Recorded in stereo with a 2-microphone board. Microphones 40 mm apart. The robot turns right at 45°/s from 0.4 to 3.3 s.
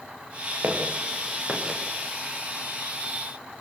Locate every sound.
0.6 s footsteps: 65° right (ahead or behind), 7.5 m; by 1.8 s 15° right (ahead or behind), 6.5 m